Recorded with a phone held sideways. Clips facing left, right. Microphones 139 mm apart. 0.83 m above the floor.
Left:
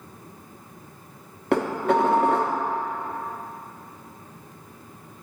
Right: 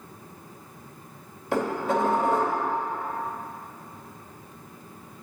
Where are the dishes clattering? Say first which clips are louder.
Left 4 dB; 65° left (ahead or behind), 0.9 m.